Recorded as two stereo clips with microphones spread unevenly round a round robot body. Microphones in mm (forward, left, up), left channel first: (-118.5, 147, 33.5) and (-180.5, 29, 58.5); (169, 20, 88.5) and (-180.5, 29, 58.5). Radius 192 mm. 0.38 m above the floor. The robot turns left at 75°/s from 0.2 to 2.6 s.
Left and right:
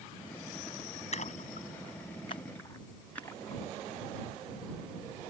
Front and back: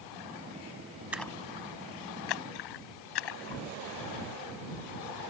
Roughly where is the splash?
Left.